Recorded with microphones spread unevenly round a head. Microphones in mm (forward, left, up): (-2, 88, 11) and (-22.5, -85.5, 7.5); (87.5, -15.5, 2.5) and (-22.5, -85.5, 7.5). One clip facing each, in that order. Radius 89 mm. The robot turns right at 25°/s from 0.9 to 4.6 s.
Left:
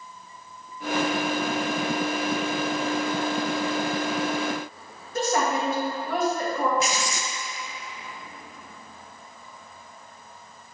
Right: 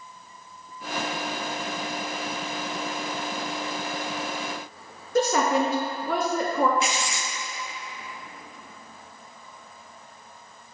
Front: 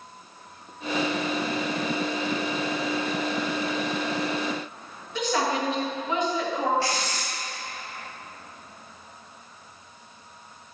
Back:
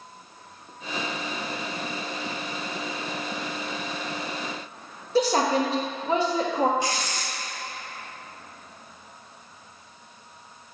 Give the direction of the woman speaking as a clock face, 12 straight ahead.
3 o'clock.